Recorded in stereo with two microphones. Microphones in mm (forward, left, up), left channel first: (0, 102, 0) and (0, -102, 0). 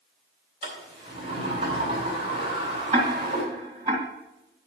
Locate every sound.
0.6 s a sliding door: 30° right (ahead or behind), 3.5 m
2.9 s ticking: 35° right (ahead or behind), 2 m